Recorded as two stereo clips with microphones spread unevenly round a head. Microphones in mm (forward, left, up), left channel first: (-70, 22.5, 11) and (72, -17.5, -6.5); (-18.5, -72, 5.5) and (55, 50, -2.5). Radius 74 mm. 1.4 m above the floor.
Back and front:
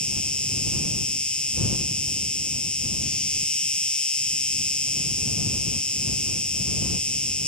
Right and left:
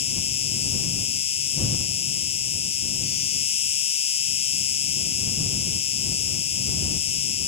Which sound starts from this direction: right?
An insect, at 0.0 s.